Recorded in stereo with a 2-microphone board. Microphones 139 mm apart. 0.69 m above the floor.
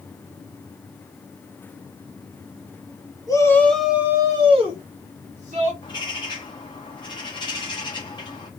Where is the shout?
25° left (ahead or behind), 1.0 m; by 5.7 s 65° right (ahead or behind), 1.7 m.